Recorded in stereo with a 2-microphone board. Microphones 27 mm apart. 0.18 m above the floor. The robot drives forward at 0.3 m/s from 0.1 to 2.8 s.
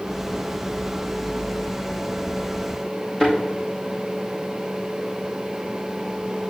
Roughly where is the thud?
Centre.